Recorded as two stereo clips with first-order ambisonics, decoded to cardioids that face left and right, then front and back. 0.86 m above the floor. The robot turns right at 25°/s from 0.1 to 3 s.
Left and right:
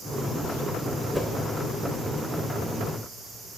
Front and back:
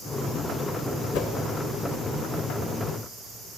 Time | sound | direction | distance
1.1 | a whoosh | straight ahead | 1.0 m